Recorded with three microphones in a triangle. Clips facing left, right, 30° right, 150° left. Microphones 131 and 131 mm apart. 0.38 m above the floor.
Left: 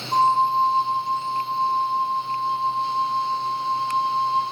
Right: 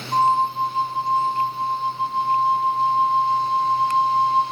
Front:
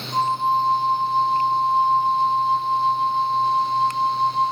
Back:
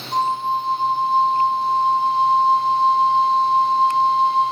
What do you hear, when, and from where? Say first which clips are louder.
0.1 s a flute: even, even; 155° left, 8 m